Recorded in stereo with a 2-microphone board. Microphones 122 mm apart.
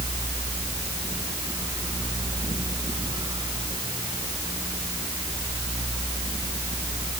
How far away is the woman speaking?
No woman speaking in this recording.